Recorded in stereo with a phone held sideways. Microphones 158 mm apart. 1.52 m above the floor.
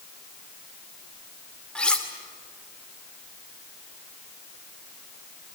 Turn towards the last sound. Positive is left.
turn(degrees=5)  # may be behind; listen again after turning